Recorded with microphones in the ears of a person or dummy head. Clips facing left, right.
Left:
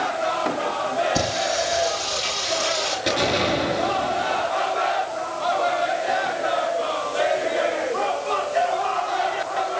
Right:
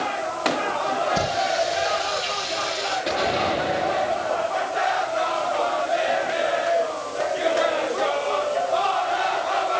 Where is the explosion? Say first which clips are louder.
Left 2 dB; 35° left (ahead or behind), 5 m.